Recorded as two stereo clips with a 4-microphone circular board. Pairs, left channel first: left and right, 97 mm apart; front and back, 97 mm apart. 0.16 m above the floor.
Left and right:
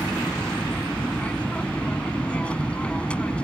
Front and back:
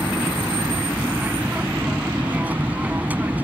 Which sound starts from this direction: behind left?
An aircraft, at 0.0 s.